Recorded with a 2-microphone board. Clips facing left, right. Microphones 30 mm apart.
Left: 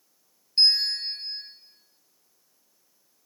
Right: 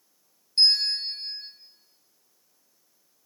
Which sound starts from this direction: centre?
A bell, at 0.6 s.